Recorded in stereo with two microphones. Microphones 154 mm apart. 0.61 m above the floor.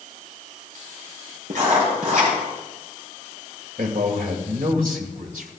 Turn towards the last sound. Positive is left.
turn(degrees=-75)  # may be behind; listen again after turning